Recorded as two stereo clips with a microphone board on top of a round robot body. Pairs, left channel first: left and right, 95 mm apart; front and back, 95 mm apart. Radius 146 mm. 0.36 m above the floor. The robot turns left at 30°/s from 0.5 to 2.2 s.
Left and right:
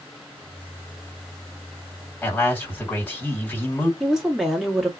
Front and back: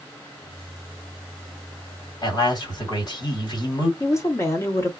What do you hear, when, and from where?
2.2 s a man speaking: 25° left, 1.9 m
4.0 s a woman speaking: 5° right, 1.4 m